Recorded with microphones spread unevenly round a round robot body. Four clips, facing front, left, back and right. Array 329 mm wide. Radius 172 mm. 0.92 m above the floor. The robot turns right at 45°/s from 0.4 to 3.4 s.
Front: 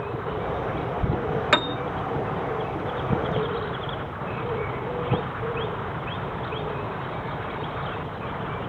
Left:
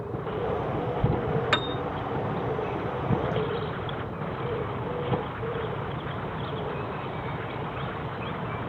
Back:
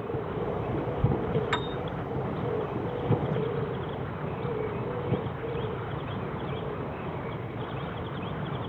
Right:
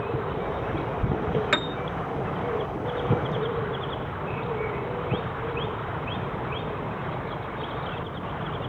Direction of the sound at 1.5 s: 10° right.